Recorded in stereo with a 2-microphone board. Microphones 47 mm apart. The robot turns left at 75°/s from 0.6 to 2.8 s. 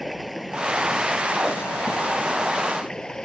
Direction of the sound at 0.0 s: Straight behind.